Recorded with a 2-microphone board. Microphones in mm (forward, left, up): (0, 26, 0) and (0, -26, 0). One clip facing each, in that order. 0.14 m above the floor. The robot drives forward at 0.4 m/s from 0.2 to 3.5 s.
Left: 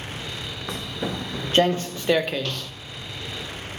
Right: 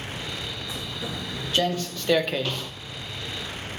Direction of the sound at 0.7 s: 60° left (ahead or behind).